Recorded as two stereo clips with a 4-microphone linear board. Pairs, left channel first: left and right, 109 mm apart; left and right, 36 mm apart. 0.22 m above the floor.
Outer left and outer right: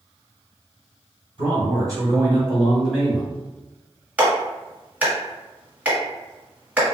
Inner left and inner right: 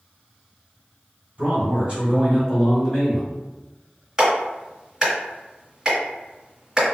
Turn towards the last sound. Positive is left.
turn(degrees=-15)  # may be behind; listen again after turning